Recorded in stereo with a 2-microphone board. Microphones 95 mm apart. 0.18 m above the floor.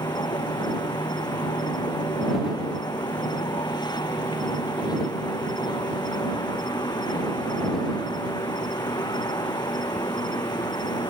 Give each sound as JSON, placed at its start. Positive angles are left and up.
{"t": 0.0, "sound": "an insect", "side_deg": 45}